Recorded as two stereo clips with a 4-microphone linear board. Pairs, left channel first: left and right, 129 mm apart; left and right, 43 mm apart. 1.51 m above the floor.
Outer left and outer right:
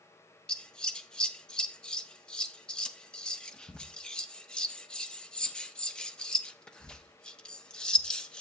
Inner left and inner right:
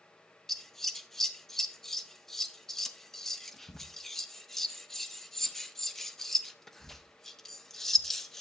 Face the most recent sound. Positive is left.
turn(degrees=5)  # may be behind; listen again after turning